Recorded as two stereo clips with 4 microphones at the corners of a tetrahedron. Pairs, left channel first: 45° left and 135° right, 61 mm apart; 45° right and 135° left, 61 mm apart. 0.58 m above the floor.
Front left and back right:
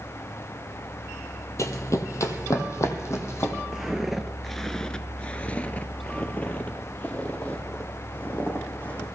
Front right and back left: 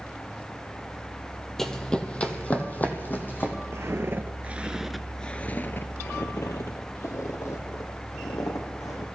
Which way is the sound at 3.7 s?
145° left.